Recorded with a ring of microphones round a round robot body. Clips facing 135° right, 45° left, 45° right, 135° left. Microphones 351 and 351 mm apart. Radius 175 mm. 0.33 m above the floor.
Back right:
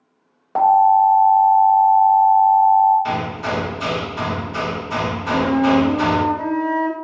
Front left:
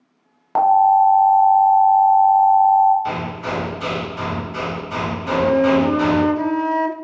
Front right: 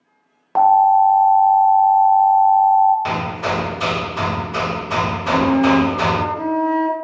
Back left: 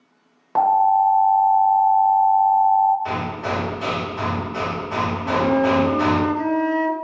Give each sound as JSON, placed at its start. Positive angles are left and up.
{"t": 0.6, "sound": "an alarm", "azimuth_deg": 40, "distance_m": 0.5}
{"t": 3.0, "sound": "hammering", "azimuth_deg": -55, "distance_m": 0.6}
{"t": 5.2, "sound": "a flute", "azimuth_deg": 70, "distance_m": 0.5}